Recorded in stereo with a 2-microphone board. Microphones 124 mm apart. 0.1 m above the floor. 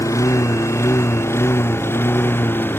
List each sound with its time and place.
0.0 s a lawn mower: 25° left (ahead or behind); by 2.8 s 15° left (ahead or behind)